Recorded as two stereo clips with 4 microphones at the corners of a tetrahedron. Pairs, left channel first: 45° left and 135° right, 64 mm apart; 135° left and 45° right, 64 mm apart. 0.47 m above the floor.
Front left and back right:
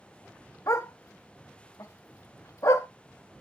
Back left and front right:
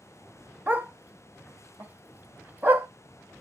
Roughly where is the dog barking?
Ahead.